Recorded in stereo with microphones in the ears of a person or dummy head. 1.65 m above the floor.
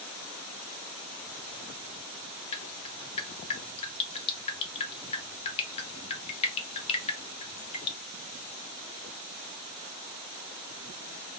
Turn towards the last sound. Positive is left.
turn(degrees=30)  # may be behind; listen again after turning